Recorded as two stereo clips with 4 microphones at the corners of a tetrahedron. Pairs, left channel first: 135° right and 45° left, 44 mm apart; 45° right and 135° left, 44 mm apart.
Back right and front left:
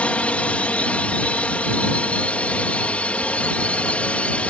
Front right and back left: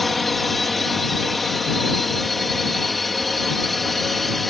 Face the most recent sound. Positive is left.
turn(degrees=-135)